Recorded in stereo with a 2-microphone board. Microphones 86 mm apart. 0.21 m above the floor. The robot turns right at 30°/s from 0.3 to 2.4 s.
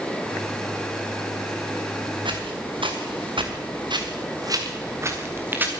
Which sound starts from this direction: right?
Footsteps, at 2.2 s.